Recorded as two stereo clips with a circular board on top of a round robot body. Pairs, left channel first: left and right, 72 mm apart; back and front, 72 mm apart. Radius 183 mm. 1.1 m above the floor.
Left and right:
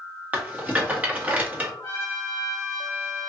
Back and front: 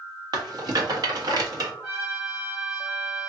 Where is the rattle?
20° right, 1.4 m.